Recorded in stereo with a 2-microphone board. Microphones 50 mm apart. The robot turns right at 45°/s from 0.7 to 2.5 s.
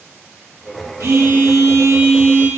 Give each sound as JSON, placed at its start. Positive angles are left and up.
{"t": 1.0, "sound": "a phone buzzing", "azimuth_deg": -110, "distance_m": 1.2}